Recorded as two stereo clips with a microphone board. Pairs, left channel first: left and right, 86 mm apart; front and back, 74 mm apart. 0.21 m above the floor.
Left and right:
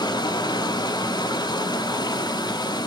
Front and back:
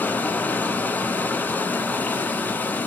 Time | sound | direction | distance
0.0 | running water | 65° left | 0.7 m